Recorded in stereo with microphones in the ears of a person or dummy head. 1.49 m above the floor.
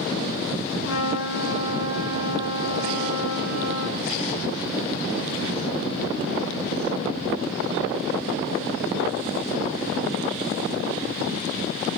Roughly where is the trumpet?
Left.